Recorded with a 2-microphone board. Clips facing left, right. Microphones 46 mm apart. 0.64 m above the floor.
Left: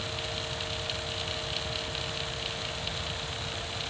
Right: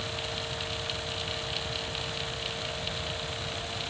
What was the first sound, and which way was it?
Only background noise.